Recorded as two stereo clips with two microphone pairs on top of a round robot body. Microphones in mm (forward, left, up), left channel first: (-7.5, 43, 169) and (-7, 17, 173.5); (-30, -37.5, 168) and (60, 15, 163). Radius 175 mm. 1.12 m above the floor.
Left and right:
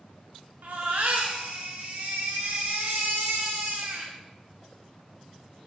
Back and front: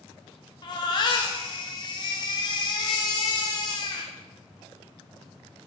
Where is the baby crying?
105° right, 0.6 m.